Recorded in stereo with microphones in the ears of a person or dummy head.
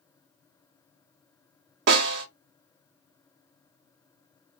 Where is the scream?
No scream in this recording.